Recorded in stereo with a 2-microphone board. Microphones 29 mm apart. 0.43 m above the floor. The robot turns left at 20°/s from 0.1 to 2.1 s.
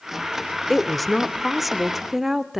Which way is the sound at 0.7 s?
5° left (ahead or behind).